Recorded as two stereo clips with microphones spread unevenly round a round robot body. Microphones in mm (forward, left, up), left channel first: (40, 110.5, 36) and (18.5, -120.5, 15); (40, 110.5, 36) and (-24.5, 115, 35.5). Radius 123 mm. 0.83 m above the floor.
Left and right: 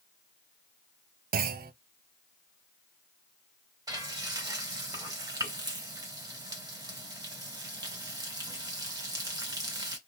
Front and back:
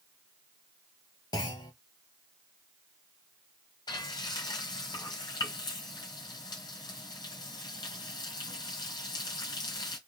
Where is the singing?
No singing in this recording.